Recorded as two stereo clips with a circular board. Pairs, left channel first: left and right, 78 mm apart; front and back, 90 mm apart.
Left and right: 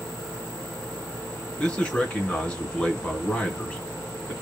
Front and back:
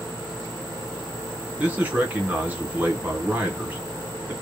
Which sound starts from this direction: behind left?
A man speaking, at 1.6 s.